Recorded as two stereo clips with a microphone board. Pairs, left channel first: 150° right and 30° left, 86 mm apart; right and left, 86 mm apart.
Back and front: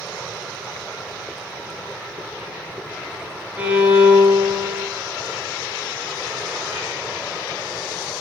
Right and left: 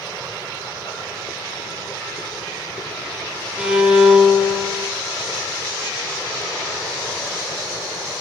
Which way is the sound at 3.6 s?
35° left.